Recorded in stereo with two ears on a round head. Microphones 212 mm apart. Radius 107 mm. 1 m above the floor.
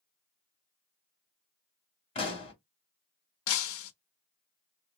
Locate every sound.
2.1 s a pop: 25° left (ahead or behind), 1.5 m
3.5 s breaking glass: 65° left (ahead or behind), 0.5 m